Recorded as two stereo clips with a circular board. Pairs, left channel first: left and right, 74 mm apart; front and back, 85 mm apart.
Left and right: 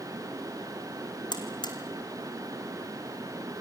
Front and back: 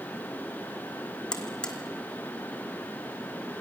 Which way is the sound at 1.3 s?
80° left.